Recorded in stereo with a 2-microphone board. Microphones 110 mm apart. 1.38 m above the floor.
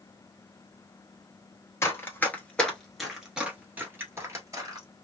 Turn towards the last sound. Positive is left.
turn(degrees=-35)  # may be behind; listen again after turning